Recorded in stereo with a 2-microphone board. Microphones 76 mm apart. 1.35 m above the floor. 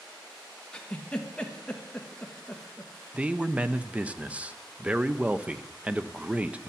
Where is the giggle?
10° left (ahead or behind), 1.3 m.